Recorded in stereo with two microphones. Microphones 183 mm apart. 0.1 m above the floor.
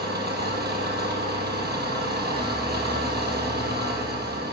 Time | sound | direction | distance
0.0 | an engine running | 60° right (ahead or behind) | 2 m